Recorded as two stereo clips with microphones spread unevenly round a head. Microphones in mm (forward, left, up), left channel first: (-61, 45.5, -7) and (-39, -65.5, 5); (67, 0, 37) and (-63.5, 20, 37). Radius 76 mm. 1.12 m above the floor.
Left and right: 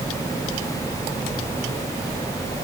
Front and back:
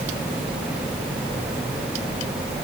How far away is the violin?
I don't hear a violin.